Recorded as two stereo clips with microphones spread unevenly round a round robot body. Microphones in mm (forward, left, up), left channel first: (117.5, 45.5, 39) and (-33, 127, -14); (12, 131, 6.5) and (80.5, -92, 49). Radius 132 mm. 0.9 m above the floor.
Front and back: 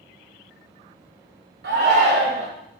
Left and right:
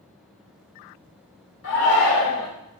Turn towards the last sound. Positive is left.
turn(degrees=145)